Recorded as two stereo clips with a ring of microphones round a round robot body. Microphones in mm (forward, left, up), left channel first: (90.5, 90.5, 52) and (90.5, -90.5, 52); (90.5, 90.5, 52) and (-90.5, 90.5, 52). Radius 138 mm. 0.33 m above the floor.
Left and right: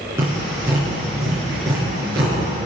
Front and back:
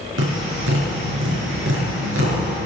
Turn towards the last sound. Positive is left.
turn(degrees=-170)